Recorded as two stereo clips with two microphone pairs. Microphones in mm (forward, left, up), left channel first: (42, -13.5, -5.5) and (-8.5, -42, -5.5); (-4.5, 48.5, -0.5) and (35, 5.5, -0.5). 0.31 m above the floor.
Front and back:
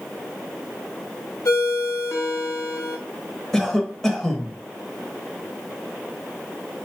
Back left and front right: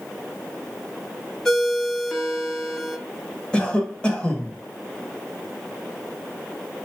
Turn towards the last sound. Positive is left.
turn(degrees=100)